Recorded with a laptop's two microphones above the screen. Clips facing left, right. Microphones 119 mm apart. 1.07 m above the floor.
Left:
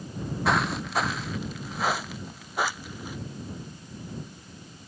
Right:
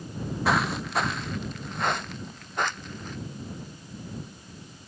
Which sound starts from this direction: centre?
Footsteps, at 0.5 s.